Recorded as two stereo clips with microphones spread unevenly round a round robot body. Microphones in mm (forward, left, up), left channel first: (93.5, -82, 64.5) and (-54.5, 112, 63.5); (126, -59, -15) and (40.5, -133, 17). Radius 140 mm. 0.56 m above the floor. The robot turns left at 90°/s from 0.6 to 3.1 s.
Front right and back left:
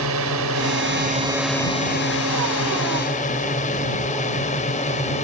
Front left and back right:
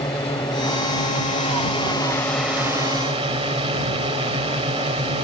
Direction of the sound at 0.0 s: 120° left.